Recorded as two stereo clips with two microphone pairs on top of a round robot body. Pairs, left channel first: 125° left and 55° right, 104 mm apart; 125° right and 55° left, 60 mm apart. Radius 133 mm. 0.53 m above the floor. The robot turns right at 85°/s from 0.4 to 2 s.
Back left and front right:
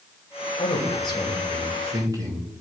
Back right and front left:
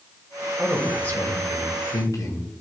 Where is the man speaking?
130° left, 3 m; by 2.5 s 110° right, 3 m.